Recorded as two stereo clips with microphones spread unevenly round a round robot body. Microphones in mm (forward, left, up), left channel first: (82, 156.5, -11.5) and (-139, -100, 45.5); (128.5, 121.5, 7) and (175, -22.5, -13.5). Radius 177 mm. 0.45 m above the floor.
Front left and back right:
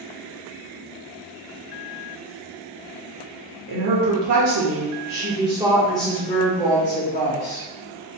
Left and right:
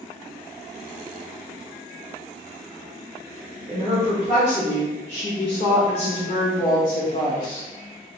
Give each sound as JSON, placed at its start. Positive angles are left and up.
{"t": 3.7, "sound": "a woman speaking", "azimuth_deg": -125, "distance_m": 1.2}